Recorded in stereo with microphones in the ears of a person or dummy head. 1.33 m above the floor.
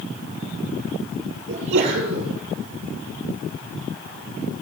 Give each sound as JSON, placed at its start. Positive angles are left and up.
{"t": 1.5, "sound": "a sneeze", "side_deg": -70, "distance_m": 9.0}